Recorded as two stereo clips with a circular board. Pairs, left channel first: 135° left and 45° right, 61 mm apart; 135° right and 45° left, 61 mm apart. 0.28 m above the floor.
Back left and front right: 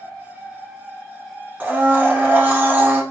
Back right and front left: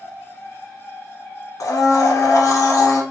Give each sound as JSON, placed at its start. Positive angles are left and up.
{"t": 1.6, "sound": "a blender", "azimuth_deg": -110, "distance_m": 0.7}